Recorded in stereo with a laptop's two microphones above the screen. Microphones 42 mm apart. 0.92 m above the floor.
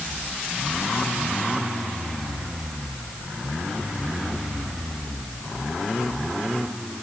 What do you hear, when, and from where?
Only background noise.